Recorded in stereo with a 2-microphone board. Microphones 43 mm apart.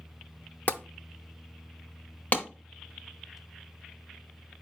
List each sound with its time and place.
0.7 s tapping: 35° left (ahead or behind), 0.6 m
2.3 s a clap: 35° left (ahead or behind), 1.0 m